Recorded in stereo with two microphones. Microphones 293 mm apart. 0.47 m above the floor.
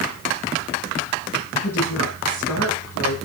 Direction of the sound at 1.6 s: 80° left.